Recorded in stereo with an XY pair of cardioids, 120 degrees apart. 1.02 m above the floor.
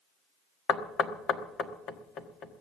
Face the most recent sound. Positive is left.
turn(degrees=55)